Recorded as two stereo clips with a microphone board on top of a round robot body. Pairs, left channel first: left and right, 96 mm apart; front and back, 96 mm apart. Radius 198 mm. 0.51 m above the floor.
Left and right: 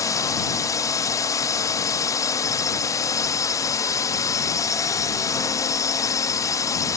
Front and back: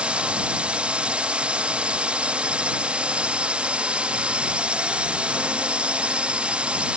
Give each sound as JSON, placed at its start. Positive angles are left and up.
{"t": 0.0, "sound": "a drone", "azimuth_deg": 110}